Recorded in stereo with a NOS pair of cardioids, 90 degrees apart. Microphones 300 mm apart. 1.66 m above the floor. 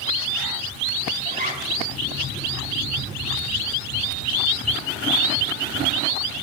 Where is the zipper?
30° right, 3.5 m.